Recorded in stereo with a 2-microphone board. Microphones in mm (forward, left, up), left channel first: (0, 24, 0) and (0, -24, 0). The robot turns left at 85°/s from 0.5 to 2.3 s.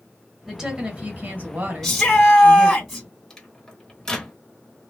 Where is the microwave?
15° left (ahead or behind), 0.7 m.